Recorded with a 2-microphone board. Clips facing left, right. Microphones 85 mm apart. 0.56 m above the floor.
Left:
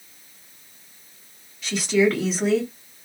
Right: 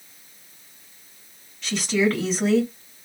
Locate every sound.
1.6 s a woman speaking: 5° left (ahead or behind), 1.5 m